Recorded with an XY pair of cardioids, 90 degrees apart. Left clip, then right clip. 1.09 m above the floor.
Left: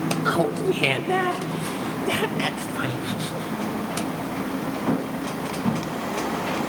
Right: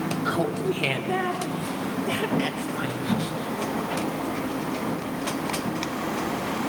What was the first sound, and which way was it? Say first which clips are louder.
Laughter: left 4 dB; 35° left.